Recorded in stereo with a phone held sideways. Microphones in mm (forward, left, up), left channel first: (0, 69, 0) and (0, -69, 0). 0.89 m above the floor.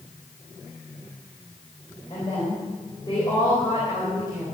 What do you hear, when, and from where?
2.1 s a woman speaking: 35° left (ahead or behind), 4 m